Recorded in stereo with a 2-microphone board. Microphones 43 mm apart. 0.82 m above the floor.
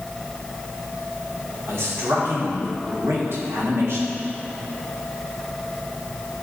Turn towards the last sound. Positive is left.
turn(degrees=-70)  # may be behind; listen again after turning